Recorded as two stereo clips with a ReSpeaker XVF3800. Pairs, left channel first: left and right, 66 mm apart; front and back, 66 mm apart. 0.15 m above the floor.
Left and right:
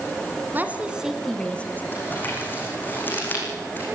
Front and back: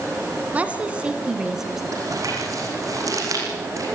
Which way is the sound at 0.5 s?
125° right.